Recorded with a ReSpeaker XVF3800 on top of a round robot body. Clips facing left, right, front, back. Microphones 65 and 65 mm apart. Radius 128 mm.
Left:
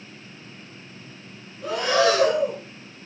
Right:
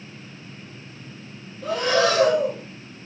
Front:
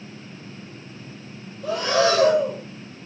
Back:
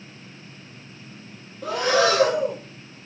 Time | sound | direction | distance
1.6 | breathing | 175° left | 2.5 m